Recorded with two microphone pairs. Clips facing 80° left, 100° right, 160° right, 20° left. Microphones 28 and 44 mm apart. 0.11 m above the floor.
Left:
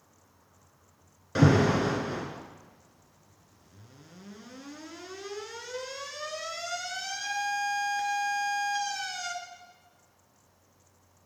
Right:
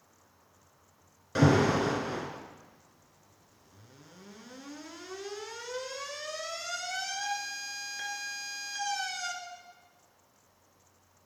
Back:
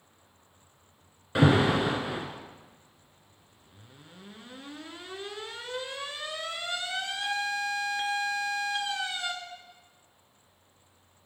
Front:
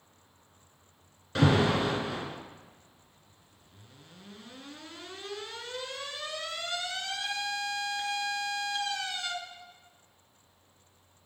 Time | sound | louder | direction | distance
1.4 | an alarm | left 1 dB, back 2 dB | 160° left | 1.0 m